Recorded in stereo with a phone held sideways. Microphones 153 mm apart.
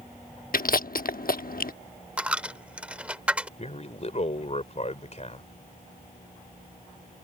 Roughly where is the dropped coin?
Centre.